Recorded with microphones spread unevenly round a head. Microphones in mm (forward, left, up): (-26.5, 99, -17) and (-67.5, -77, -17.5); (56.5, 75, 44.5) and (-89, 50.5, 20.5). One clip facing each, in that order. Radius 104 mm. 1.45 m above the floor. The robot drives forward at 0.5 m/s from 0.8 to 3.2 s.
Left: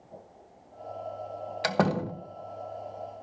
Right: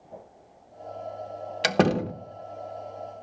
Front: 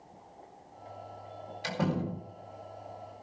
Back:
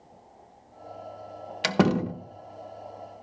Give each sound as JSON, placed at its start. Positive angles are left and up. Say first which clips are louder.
{"t": 1.6, "sound": "a door slam", "louder": "right 4 dB, back 8 dB", "azimuth_deg": -160, "distance_m": 1.1}